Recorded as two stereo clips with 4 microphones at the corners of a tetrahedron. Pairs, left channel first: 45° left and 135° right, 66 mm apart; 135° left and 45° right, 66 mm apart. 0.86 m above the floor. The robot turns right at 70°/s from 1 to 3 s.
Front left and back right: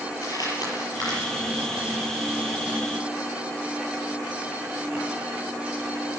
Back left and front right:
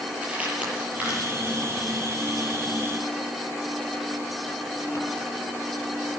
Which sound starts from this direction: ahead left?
Crumpling, at 0.2 s.